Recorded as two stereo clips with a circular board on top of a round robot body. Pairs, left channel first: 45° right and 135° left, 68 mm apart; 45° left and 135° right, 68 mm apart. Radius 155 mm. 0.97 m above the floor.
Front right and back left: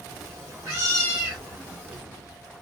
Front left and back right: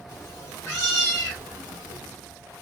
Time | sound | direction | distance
0.1 | a cat meowing | 85° left | 0.9 m